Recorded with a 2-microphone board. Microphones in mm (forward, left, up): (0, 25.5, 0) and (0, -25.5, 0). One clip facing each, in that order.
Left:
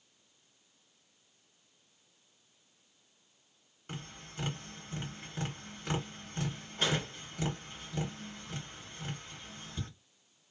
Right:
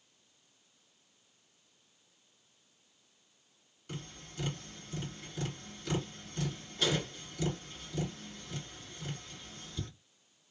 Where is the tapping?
40° left (ahead or behind), 2.0 m.